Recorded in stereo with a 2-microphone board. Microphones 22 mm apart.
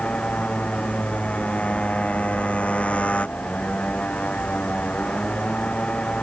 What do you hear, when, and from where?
0.0 s a motorcycle: 85° left